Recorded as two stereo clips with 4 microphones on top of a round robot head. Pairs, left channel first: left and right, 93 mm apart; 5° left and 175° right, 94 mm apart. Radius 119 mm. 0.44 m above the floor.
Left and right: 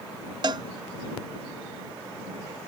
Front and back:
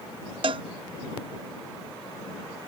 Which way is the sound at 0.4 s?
135° right.